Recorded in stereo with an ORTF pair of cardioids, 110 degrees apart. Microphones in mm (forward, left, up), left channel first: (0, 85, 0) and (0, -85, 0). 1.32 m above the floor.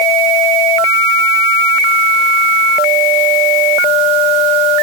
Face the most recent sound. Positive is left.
No sound to turn to.